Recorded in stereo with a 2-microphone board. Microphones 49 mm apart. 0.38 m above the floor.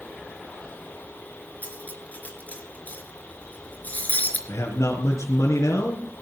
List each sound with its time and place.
1.6 s cutlery clinking: 30° left (ahead or behind), 3.5 m
4.5 s a man speaking: 80° left, 5 m